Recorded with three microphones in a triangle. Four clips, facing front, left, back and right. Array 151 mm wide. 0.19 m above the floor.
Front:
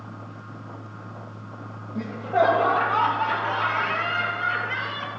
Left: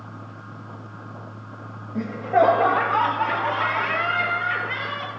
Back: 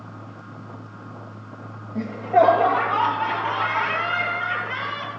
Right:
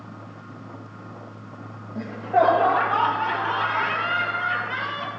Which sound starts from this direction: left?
Laughter, at 1.9 s.